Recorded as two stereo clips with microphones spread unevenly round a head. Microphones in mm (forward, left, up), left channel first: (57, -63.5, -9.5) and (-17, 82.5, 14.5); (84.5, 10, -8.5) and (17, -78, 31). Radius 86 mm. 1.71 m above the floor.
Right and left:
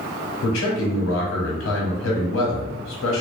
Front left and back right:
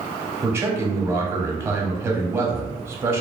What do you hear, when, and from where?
0.4 s a man speaking: 65° right, 0.8 m